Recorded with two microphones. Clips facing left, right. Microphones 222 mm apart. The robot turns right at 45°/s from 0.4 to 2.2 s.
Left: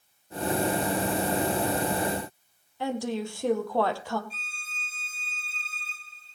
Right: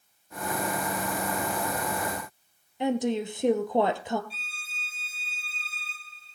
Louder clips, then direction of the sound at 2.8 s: Right 4 dB; 20° right (ahead or behind).